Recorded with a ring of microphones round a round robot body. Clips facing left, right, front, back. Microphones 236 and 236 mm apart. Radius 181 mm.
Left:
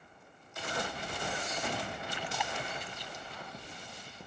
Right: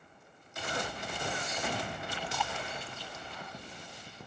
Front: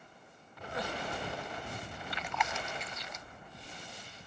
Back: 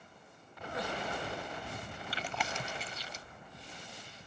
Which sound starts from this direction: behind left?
Chewing, at 2.1 s.